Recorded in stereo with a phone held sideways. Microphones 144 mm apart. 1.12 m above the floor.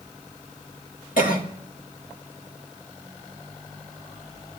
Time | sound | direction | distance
1.2 | a cough | 80° left | 2.5 m